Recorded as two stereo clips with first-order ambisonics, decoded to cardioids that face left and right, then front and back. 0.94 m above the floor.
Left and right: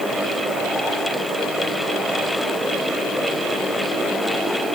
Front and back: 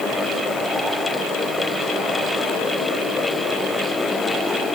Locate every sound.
Only background noise.